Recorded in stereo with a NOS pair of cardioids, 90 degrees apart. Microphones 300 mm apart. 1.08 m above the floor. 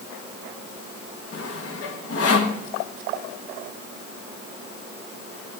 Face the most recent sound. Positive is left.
turn(degrees=50)